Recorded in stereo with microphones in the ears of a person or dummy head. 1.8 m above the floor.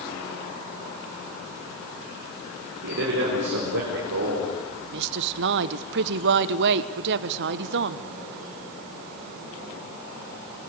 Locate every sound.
2.8 s a man speaking: 60° right (ahead or behind), 4.5 m; by 4.5 s 65° right (ahead or behind), 6.5 m
4.9 s a woman speaking: 65° right (ahead or behind), 1.2 m